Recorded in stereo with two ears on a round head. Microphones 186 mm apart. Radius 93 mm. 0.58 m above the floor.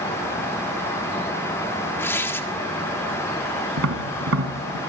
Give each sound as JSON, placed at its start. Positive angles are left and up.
{"t": 2.0, "sound": "tearing paper", "side_deg": 10, "distance_m": 1.5}
{"t": 3.8, "sound": "tapping", "side_deg": -80, "distance_m": 3.5}